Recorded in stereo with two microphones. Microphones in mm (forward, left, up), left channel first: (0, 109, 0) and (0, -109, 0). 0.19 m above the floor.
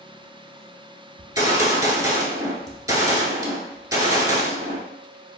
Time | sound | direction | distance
1.2 | a gunshot | 15° right (ahead or behind) | 0.7 m